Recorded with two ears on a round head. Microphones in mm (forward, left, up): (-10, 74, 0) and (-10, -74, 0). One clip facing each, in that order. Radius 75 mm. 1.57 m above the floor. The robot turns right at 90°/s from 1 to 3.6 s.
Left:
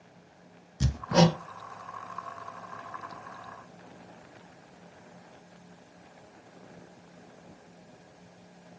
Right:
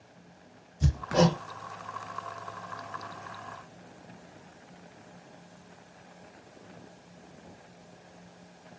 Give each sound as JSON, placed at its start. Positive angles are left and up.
{"t": 0.8, "sound": "hammering", "side_deg": 75, "distance_m": 0.6}